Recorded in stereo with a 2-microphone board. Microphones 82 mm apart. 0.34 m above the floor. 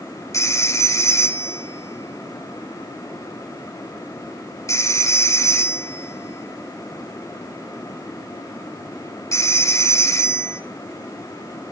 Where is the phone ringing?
40° left (ahead or behind), 0.7 m.